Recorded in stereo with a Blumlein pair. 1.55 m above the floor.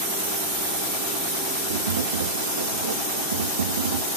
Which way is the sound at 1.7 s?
70° right.